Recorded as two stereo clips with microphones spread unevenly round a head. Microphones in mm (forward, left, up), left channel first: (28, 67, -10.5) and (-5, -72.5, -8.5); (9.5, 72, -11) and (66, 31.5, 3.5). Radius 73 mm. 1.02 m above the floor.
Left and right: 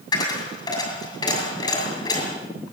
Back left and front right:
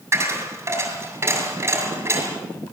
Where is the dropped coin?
15° left, 7 m.